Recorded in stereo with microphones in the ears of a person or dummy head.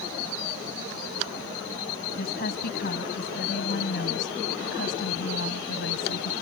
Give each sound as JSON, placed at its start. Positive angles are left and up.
{"t": 2.2, "sound": "a woman speaking", "side_deg": 55}